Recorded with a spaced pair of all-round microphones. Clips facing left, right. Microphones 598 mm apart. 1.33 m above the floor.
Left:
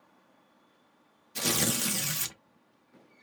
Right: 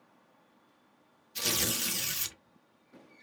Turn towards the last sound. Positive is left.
turn(degrees=70)  # may be behind; listen again after turning